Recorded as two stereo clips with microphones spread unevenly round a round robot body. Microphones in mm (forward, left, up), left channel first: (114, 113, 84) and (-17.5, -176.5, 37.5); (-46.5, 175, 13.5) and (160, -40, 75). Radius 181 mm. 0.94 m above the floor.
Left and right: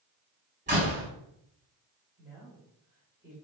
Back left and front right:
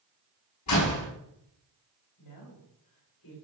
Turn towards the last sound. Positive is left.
turn(degrees=165)